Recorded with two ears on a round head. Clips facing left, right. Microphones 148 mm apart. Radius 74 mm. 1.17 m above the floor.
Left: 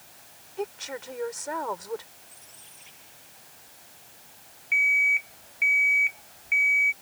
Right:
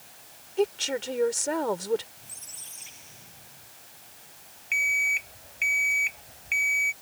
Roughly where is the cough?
No cough in this recording.